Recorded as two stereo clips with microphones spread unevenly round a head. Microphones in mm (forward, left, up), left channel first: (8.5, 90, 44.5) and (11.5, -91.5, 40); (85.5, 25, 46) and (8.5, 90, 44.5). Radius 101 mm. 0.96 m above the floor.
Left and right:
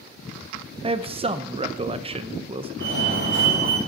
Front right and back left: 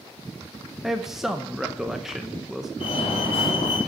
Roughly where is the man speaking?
Behind right.